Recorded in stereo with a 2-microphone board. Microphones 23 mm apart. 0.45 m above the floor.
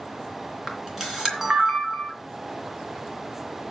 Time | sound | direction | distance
0.7 | a camera shutter | 15° right (ahead or behind) | 3 m